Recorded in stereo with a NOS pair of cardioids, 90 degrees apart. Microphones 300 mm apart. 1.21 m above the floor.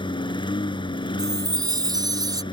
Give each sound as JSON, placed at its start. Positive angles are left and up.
{"t": 0.0, "sound": "a lawn mower", "azimuth_deg": 15}
{"t": 1.2, "sound": "a chime", "azimuth_deg": -10}